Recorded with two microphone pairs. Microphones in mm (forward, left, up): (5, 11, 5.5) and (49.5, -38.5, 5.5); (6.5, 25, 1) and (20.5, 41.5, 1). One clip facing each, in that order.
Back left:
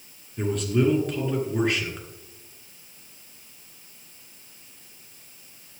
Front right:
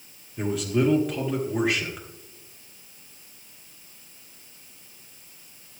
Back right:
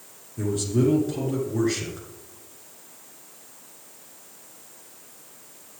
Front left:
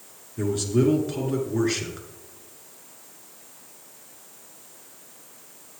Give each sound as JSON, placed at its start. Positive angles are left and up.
{"t": 0.4, "sound": "a man speaking", "azimuth_deg": 30, "distance_m": 1.4}